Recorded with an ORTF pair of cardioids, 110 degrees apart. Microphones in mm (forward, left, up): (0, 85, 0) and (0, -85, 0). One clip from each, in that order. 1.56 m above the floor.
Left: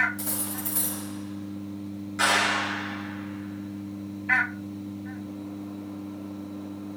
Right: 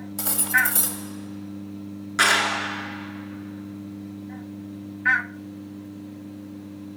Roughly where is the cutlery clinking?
Ahead right.